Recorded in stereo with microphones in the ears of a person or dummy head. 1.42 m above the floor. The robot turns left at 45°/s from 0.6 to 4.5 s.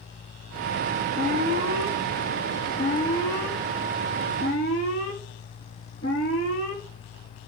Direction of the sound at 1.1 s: 140° right.